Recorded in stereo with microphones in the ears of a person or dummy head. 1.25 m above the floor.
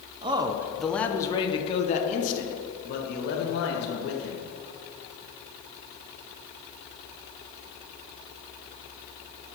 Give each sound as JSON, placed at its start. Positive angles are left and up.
{"t": 0.2, "sound": "a man speaking", "side_deg": -25, "distance_m": 0.8}